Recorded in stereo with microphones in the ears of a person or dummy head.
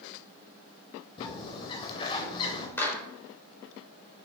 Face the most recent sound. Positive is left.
turn(degrees=10)  # may be behind; listen again after turning